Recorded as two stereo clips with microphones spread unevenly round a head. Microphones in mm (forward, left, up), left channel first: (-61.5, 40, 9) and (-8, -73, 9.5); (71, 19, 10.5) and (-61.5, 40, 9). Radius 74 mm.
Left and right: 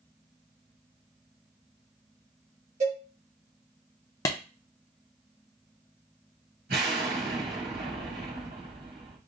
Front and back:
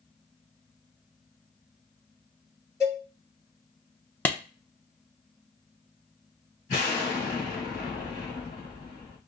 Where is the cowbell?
80° right, 2 m.